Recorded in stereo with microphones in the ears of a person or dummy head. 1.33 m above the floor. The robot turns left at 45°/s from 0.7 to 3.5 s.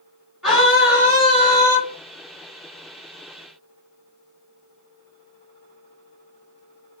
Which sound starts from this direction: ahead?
A scream, at 0.4 s.